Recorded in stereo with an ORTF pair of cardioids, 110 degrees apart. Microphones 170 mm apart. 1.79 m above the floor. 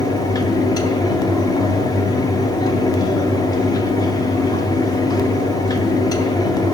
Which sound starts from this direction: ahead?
A fan, at 0.0 s.